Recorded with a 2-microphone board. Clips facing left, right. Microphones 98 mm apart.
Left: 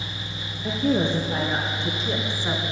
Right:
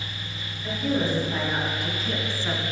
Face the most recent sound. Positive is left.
turn(degrees=15)  # may be behind; listen again after turning